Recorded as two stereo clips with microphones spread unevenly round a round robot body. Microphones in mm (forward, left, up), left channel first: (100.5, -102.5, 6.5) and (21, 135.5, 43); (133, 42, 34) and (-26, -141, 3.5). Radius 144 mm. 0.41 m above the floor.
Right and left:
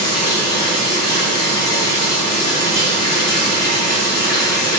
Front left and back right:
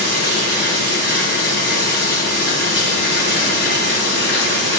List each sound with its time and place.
0.0 s running water: straight ahead, 3 m